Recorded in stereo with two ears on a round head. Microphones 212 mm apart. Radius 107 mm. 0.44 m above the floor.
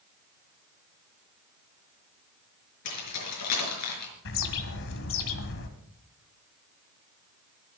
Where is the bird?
50° left (ahead or behind), 1.8 m.